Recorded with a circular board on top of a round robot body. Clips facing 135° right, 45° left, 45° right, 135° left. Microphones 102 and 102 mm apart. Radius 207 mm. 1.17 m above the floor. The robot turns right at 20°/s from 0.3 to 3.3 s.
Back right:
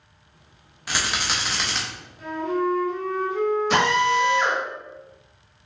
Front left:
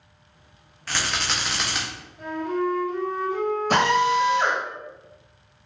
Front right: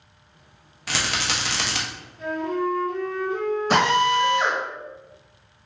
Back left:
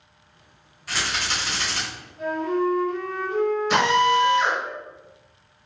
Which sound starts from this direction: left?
A flute, at 2.2 s.